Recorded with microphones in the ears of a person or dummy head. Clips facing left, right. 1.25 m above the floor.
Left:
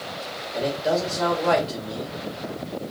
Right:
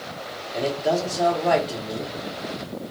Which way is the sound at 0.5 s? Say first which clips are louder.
Right 1 dB; 15° right (ahead or behind).